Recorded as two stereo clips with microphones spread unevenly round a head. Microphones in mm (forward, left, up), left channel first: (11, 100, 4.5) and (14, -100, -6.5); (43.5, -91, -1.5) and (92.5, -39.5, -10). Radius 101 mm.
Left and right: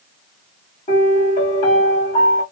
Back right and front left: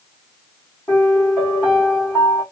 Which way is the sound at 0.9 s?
150° left.